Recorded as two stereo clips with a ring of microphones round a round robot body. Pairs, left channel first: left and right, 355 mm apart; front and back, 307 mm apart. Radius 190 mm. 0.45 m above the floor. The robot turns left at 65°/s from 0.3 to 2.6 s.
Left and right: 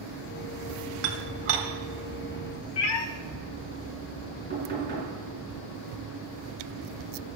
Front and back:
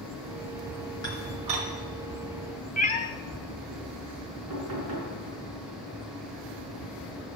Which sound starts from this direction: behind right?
Knocking, at 4.5 s.